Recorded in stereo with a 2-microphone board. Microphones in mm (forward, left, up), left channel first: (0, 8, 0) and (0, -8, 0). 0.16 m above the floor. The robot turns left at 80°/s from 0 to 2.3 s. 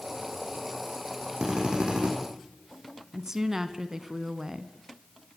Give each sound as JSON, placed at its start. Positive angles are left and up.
{"t": 1.4, "sound": "a drill", "azimuth_deg": -40, "distance_m": 6.0}
{"t": 3.1, "sound": "a woman speaking", "side_deg": -25, "distance_m": 1.4}